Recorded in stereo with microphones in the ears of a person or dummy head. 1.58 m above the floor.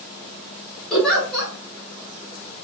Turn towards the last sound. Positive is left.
turn(degrees=0)  # may be behind; listen again after turning